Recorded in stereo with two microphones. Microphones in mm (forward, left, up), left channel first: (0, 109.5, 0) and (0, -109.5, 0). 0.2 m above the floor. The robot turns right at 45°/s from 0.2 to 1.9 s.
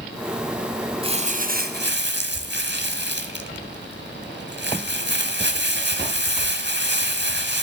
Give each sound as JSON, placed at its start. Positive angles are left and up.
{"t": 1.0, "sound": "crumpling", "azimuth_deg": -150, "distance_m": 1.1}